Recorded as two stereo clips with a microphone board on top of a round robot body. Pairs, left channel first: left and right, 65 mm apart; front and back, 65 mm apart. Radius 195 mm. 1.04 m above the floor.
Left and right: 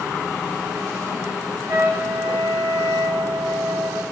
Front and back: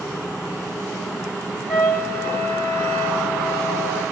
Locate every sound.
1.7 s a trumpet: 90° right, 1.4 m